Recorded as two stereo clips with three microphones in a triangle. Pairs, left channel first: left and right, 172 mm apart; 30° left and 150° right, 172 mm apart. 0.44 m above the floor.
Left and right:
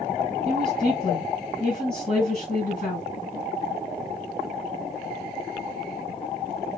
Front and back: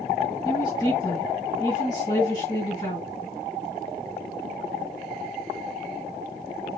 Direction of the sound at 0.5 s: 90° left.